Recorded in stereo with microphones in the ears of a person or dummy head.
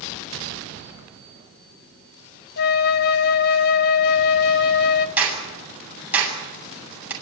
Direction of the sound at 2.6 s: 50° left (ahead or behind).